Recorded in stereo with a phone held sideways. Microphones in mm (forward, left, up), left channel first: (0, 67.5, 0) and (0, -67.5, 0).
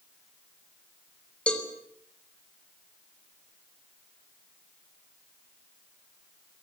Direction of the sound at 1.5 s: 10° left (ahead or behind).